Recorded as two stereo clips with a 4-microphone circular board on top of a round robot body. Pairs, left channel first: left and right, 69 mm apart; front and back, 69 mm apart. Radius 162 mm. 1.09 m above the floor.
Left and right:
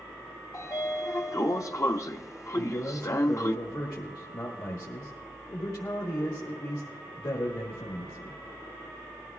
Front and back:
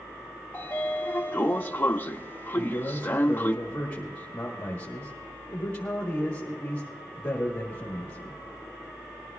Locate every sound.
0.5 s a sliding door: 55° left, 0.8 m
2.5 s a man speaking: 65° left, 1.5 m